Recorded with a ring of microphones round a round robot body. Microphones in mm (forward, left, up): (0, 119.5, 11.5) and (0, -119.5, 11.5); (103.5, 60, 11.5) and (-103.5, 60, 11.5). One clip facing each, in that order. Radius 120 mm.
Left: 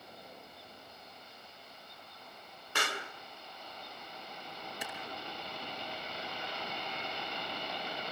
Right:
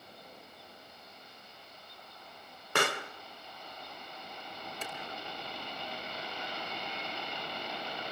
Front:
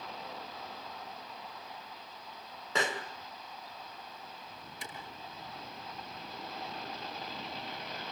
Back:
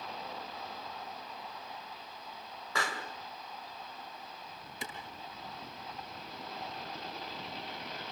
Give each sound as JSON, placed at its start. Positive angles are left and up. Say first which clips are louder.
{"t": 2.8, "sound": "a pop", "louder": "right 7 dB, front 4 dB", "azimuth_deg": -70, "distance_m": 2.5}
{"t": 4.8, "sound": "a clap", "louder": "right 1 dB, back 5 dB", "azimuth_deg": 170, "distance_m": 7.5}